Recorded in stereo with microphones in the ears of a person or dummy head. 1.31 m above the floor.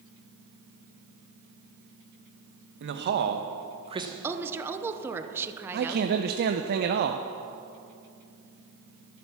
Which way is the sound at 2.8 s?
60° right (ahead or behind).